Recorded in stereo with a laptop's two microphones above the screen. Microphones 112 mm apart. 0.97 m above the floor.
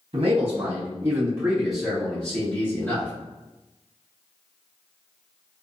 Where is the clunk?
I don't hear a clunk.